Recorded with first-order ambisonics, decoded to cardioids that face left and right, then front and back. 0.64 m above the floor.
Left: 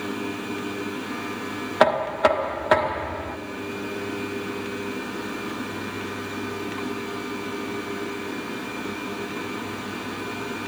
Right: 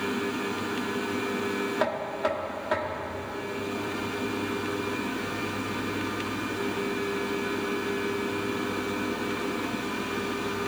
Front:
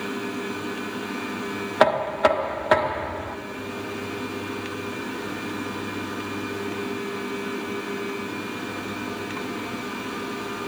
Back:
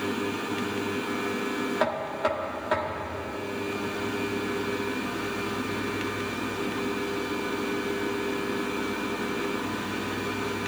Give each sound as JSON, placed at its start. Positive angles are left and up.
{"t": 1.8, "sound": "knocking", "azimuth_deg": 45, "distance_m": 0.7}